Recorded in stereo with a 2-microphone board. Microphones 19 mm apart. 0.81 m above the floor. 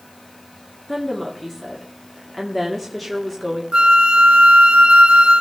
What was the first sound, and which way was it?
A woman speaking, centre (ahead or behind).